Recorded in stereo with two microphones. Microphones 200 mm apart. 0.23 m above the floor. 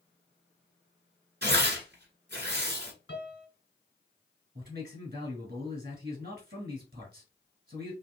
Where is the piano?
65° left (ahead or behind), 1.3 m.